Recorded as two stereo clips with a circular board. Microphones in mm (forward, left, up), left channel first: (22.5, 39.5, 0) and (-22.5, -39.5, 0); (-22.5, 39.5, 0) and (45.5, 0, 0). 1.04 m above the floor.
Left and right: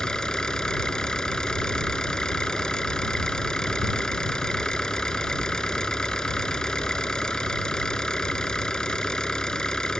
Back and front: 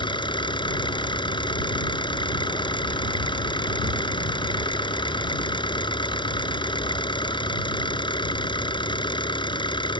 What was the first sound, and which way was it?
An engine running, 140° left.